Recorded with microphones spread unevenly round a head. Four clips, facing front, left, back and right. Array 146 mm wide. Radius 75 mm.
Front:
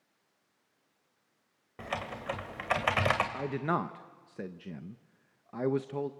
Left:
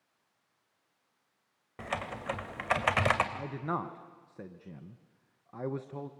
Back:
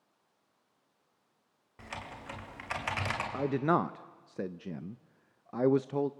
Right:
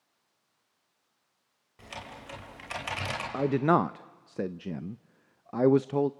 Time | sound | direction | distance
1.8 | typing on a keyboard | 45° left | 2.5 m
3.3 | a man speaking | 85° right | 0.5 m